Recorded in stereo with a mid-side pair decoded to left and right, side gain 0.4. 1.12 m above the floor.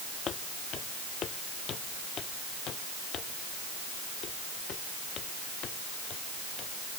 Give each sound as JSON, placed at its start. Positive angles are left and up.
{"t": 0.3, "sound": "footsteps", "azimuth_deg": 65}